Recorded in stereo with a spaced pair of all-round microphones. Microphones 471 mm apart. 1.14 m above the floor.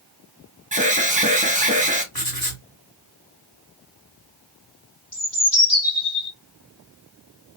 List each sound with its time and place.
0.7 s an alarm: 15° right (ahead or behind), 1.0 m
2.1 s writing: 45° left (ahead or behind), 2.5 m
5.1 s a bird: 40° left (ahead or behind), 2 m